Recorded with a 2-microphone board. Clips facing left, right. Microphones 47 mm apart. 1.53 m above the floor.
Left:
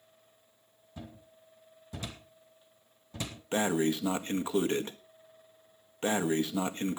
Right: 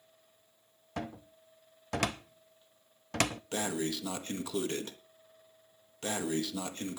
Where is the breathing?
30° left (ahead or behind), 1.1 m.